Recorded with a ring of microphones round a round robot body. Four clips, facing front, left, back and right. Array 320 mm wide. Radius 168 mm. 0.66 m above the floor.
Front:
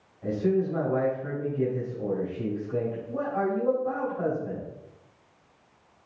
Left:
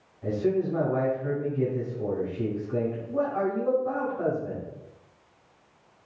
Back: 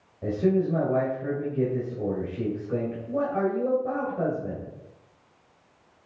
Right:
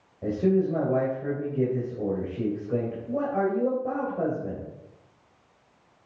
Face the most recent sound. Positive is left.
turn(degrees=-130)